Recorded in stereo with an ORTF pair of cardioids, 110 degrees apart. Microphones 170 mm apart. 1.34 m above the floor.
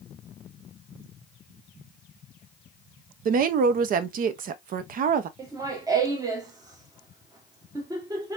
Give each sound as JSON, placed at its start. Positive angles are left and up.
{"t": 3.2, "sound": "a woman speaking", "azimuth_deg": -60, "distance_m": 0.7}
{"t": 5.4, "sound": "laughter", "azimuth_deg": -20, "distance_m": 1.1}